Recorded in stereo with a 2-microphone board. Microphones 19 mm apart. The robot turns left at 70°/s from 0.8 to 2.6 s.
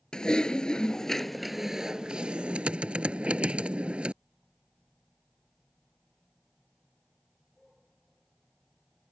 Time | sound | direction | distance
0.1 | typing on a keyboard | 40° left | ?